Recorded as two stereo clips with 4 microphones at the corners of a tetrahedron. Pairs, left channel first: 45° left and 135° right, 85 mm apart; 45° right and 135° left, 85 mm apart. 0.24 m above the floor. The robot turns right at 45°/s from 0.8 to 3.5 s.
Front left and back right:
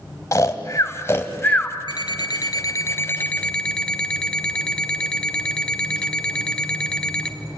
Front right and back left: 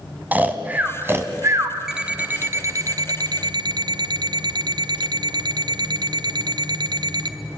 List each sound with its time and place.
0.3 s snoring: 75° left, 1.8 m; by 1.8 s 115° left, 1.8 m
1.9 s an alarm clock: 50° left, 1.3 m; by 7.3 s 125° left, 1.3 m